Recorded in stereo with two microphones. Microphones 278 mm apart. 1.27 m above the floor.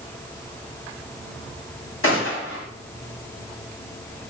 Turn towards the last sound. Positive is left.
turn(degrees=50)  # may be behind; listen again after turning